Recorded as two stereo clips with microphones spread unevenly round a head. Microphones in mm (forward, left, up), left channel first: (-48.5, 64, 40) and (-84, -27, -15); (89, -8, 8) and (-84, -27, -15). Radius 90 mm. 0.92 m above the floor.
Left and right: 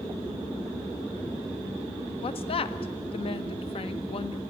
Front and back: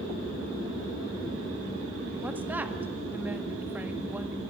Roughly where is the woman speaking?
Left.